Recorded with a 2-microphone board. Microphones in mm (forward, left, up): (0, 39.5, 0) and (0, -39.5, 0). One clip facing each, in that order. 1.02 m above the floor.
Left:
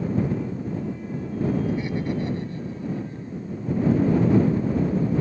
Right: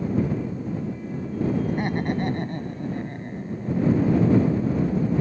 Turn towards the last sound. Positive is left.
turn(degrees=-75)  # may be behind; listen again after turning